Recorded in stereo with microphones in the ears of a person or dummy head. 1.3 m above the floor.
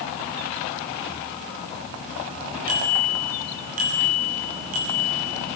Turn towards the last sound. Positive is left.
turn(degrees=-45)  # may be behind; listen again after turning